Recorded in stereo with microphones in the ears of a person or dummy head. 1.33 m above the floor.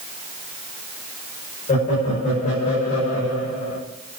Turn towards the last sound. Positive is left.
turn(degrees=45)  # may be behind; listen again after turning